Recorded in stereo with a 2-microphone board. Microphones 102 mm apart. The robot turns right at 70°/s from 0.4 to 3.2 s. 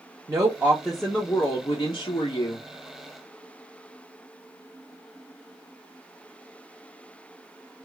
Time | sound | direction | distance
0.3 | a woman speaking | 40° right | 0.8 m